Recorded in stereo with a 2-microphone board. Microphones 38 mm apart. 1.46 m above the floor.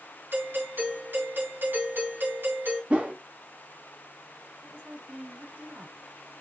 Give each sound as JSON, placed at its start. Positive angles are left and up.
{"t": 0.3, "sound": "a doorbell", "side_deg": -70, "distance_m": 3.0}
{"t": 2.9, "sound": "a whoosh", "side_deg": -40, "distance_m": 1.0}
{"t": 4.6, "sound": "a woman speaking", "side_deg": -85, "distance_m": 4.0}